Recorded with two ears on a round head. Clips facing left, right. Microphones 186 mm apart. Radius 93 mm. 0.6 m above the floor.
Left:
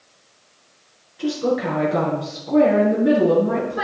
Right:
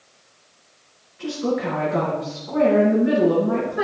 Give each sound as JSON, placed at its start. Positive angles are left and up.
{"t": 1.2, "sound": "a woman speaking", "side_deg": 50, "distance_m": 7.5}